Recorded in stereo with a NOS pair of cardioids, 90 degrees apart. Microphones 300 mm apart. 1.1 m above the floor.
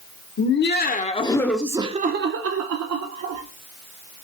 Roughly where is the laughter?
Ahead left.